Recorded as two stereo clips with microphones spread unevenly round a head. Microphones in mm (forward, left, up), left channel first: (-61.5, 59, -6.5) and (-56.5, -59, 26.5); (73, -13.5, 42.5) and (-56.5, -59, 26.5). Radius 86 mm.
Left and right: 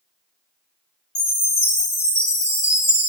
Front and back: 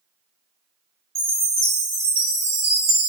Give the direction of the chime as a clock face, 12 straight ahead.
8 o'clock.